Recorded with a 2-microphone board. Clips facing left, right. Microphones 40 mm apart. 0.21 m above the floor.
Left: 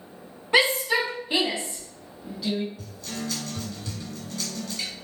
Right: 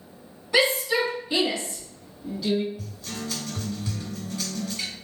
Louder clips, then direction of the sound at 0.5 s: Left 1 dB; 40° left (ahead or behind).